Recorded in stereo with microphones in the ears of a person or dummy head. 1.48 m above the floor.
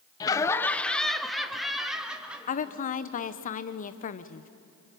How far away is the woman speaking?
About 0.8 m.